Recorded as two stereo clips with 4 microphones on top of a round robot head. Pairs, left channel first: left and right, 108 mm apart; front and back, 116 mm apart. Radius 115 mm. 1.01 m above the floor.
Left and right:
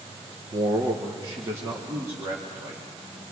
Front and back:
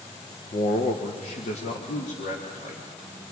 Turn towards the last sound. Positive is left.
turn(degrees=-15)